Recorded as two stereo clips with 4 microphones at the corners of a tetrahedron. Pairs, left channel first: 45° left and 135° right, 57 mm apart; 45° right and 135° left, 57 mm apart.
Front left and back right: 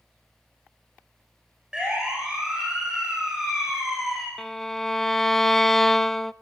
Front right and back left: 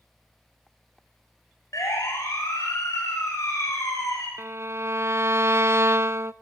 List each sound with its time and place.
1.7 s a siren: 60° right, 10 m; by 4.3 s 50° right, 8 m
4.4 s a violin: 130° left, 0.5 m